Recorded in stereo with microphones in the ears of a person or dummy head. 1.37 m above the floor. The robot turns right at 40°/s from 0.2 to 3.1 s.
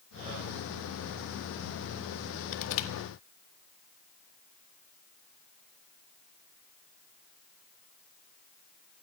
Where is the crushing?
70° left (ahead or behind), 1.3 m.